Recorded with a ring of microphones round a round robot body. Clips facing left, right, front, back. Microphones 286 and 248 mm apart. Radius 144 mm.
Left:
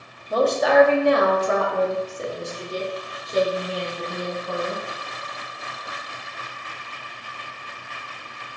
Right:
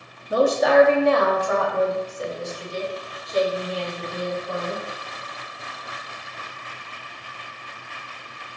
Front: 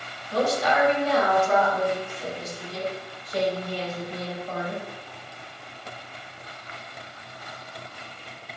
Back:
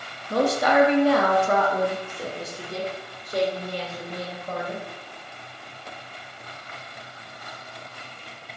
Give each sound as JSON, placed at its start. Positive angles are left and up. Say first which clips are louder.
{"t": 0.3, "sound": "a woman speaking", "louder": "right 1 dB, back 3 dB", "azimuth_deg": -165, "distance_m": 0.7}